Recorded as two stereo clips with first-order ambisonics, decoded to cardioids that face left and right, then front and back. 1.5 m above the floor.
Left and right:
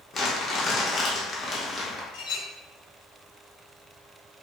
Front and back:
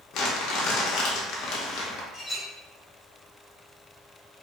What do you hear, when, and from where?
0.1 s crumpling: 30° left, 0.6 m
2.1 s a clink: 75° left, 1.1 m